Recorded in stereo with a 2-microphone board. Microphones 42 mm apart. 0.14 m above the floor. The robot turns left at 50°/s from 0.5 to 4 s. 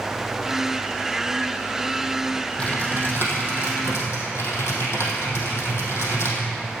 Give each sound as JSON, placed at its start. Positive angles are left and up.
{"t": 2.6, "sound": "typing on a keyboard", "azimuth_deg": 155, "distance_m": 4.0}